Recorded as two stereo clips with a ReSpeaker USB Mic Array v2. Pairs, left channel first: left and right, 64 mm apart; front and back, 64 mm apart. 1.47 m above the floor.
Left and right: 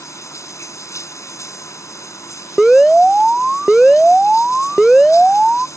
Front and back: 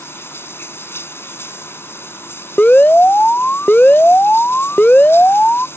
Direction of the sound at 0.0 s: 50° left.